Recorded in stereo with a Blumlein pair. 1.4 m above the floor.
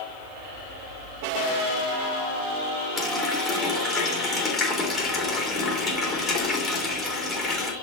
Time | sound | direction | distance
3.0 | a running tap | 10° left | 3.5 m